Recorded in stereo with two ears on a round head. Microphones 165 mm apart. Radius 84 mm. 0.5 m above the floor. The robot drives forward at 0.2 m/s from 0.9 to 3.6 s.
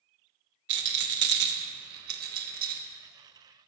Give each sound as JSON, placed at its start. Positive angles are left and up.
{"t": 0.7, "sound": "a rattle", "side_deg": -70, "distance_m": 0.6}